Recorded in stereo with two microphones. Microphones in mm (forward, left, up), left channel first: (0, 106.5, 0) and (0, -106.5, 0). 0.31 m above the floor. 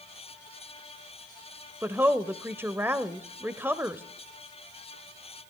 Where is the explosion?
I don't hear an explosion.